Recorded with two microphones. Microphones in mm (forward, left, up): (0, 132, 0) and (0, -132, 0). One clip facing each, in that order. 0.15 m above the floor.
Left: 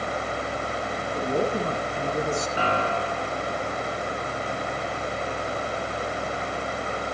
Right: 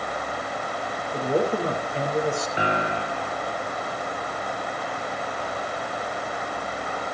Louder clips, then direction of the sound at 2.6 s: Even; 15° right (ahead or behind).